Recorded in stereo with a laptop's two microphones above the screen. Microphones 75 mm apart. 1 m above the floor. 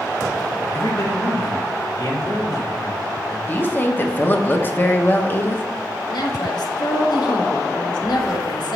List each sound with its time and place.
0.7 s a man speaking: 50° left (ahead or behind), 1.2 m
3.5 s a woman speaking: 30° left (ahead or behind), 0.6 m
6.1 s a man speaking: 70° left (ahead or behind), 1.1 m